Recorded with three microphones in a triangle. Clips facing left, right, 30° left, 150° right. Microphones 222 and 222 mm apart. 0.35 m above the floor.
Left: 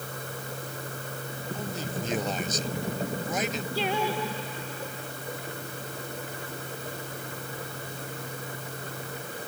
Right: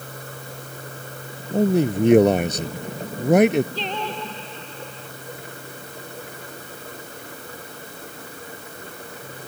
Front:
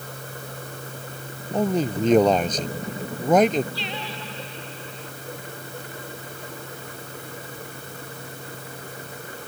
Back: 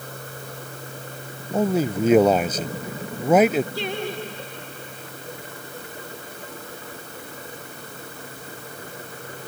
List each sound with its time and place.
1.5 s a man speaking: 65° right
3.8 s singing: 170° left